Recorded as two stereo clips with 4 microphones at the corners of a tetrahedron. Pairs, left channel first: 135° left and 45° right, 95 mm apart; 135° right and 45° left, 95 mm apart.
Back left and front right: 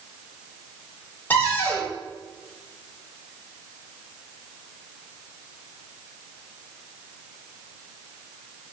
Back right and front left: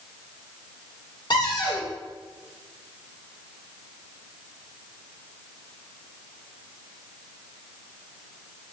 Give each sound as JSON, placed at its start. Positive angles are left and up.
{"t": 1.3, "sound": "a cupboard door", "azimuth_deg": -160, "distance_m": 2.0}